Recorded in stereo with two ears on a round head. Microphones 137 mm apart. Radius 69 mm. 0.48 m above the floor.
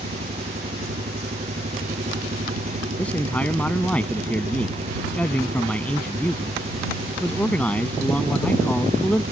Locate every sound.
0.0 s an engine running: 40° right (ahead or behind)
3.0 s a man speaking: 10° left (ahead or behind)